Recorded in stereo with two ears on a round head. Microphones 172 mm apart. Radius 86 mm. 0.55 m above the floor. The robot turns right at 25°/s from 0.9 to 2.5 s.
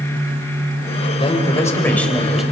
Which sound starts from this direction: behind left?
A man speaking, at 1.2 s.